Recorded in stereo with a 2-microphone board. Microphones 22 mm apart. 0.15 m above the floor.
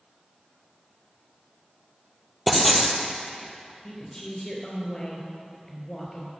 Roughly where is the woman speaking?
Left.